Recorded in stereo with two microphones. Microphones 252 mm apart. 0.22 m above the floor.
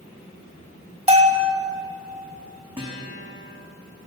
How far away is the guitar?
About 4 m.